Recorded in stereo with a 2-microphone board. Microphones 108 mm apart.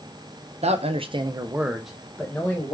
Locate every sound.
0.6 s a man speaking: 75° right (ahead or behind), 0.6 m; by 2.7 s 20° left (ahead or behind), 1.0 m